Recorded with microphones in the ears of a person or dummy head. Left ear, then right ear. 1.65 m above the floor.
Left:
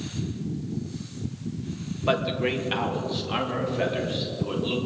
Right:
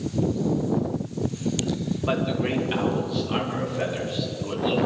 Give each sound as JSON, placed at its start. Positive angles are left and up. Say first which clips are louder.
{"t": 2.1, "sound": "a man speaking", "louder": "left 2 dB", "side_deg": 20, "distance_m": 1.7}